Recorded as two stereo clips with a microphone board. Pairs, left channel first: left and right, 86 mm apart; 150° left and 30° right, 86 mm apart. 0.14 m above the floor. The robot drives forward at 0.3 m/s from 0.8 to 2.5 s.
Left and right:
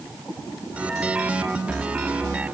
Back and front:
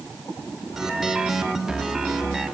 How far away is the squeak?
No squeak in this recording.